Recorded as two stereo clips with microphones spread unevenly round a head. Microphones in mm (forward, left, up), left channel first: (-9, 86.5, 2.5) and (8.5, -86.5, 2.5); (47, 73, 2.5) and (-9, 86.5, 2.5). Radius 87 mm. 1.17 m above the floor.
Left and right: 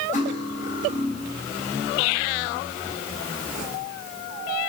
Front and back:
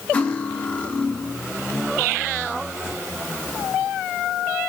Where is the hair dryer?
No hair dryer in this recording.